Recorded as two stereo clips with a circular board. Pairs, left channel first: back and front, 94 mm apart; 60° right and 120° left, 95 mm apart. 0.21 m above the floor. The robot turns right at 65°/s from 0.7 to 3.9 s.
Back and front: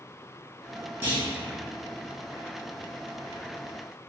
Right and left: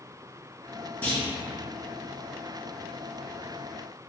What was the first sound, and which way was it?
A clunk, 25° right.